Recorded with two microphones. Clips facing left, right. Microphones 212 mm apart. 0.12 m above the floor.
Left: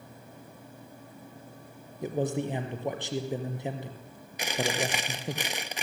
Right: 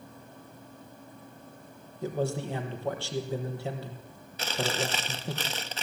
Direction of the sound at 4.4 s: 15° left (ahead or behind).